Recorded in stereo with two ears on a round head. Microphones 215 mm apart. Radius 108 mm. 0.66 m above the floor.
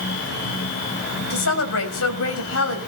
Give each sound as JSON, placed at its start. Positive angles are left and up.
{"t": 1.3, "sound": "a woman speaking", "side_deg": 65, "distance_m": 4.5}